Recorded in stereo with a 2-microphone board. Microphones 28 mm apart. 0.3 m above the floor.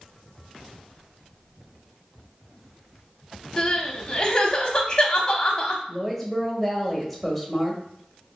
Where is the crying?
30° left (ahead or behind), 0.7 m.